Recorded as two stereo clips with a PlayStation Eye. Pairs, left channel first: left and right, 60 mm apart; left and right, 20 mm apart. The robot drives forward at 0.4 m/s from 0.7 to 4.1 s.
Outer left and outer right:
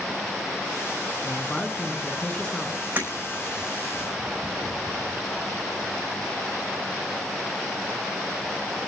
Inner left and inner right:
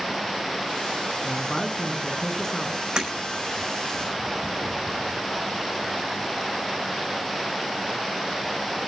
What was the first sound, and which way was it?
A man speaking, 20° left (ahead or behind).